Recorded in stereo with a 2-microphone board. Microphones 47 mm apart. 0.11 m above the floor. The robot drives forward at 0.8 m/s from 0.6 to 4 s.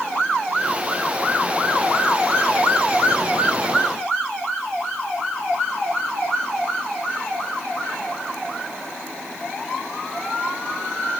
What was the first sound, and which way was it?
Only background noise.